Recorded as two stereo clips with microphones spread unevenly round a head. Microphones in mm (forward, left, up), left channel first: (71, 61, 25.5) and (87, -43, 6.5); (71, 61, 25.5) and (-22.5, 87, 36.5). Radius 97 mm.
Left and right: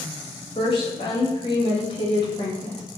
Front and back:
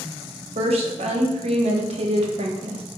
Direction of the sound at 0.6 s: 160° left.